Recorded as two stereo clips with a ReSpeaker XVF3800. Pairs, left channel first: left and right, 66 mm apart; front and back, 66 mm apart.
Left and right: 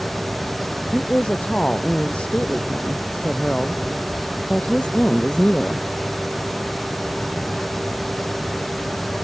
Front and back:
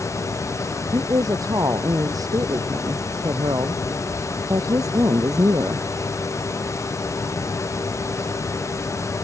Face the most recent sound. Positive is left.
turn(degrees=160)